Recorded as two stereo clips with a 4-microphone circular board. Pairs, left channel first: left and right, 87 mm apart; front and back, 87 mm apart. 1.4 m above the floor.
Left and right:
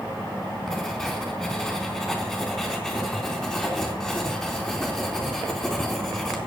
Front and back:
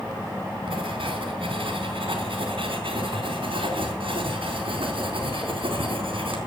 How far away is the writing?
About 4 m.